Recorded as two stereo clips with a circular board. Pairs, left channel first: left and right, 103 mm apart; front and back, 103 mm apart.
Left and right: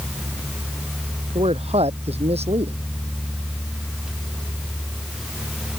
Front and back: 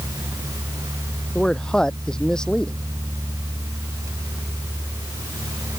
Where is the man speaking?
80° right.